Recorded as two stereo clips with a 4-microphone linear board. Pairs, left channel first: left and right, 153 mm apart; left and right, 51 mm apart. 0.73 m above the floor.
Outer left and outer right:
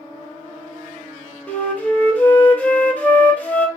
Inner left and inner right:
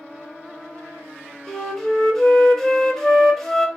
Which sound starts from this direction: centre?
A flute, at 1.5 s.